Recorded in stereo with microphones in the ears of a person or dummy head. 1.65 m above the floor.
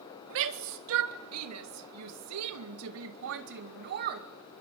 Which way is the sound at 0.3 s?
70° right (ahead or behind).